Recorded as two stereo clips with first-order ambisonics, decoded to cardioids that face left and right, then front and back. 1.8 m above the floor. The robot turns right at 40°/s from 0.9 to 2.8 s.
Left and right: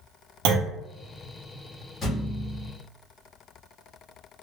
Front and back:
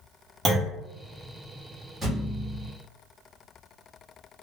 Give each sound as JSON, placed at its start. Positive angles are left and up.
{"t": 0.5, "sound": "a clunk", "azimuth_deg": -105, "distance_m": 0.6}
{"t": 2.0, "sound": "a thud", "azimuth_deg": 140, "distance_m": 1.2}